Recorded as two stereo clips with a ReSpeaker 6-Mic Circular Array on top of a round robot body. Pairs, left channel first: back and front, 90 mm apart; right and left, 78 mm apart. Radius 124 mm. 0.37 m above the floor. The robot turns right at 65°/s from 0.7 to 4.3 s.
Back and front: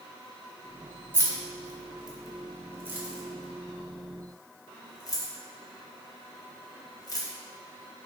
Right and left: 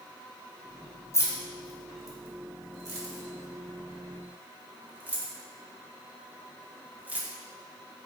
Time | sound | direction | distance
1.1 | keys jangling | 55° right | 0.8 m